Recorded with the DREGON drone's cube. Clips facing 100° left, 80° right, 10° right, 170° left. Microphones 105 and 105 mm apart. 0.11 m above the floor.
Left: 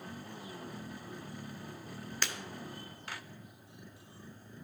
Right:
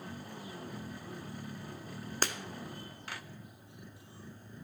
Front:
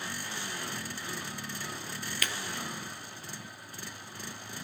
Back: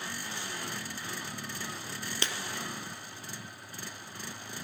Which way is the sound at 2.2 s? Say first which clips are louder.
Right 4 dB, back 1 dB; 125° right.